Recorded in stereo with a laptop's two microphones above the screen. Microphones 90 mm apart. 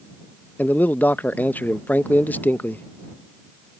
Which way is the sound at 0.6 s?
20° left (ahead or behind).